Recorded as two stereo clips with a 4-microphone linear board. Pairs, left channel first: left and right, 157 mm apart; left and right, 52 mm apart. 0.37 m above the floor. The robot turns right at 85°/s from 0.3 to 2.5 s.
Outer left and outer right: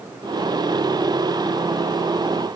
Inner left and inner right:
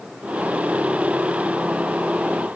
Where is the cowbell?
I don't hear a cowbell.